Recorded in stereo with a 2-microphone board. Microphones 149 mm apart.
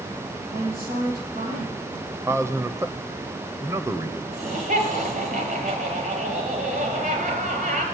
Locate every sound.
0.5 s a woman speaking: 85° right, 9.5 m
2.2 s a man speaking: 20° right (ahead or behind), 0.9 m
4.3 s laughter: 65° right (ahead or behind), 6 m